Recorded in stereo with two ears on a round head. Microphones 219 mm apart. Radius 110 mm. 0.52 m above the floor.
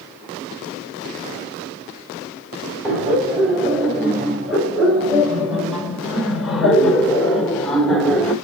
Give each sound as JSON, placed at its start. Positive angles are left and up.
{"t": 2.8, "sound": "laughter", "side_deg": 0, "distance_m": 4.0}